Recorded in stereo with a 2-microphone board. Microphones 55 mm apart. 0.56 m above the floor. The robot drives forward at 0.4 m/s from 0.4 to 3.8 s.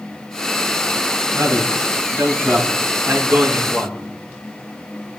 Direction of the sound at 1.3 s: 45° right (ahead or behind).